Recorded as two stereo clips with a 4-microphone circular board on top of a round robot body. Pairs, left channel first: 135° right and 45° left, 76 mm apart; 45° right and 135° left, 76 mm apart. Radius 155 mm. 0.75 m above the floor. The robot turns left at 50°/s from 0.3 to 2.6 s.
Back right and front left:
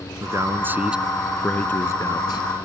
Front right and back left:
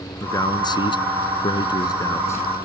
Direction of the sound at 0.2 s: Straight ahead.